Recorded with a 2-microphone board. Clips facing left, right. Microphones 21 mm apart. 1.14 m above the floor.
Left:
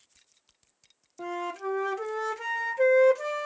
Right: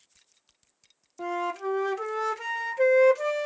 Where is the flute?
10° right (ahead or behind), 0.5 m.